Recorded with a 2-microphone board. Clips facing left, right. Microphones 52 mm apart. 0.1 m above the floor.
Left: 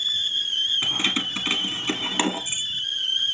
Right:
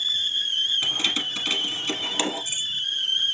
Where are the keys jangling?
20° left (ahead or behind), 1.3 m.